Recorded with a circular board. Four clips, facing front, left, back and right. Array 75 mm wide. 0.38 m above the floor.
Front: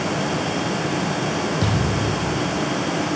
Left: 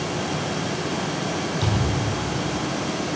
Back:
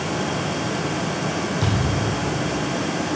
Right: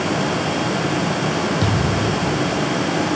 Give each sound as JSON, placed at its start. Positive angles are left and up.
{"t": 1.6, "sound": "a thud", "azimuth_deg": -65, "distance_m": 2.0}